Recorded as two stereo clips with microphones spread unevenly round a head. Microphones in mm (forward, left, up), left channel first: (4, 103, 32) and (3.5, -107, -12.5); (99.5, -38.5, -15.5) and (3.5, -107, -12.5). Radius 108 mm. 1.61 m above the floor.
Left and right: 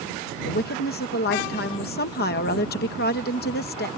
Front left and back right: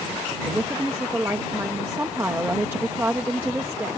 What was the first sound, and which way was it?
A woman speaking, 135° left.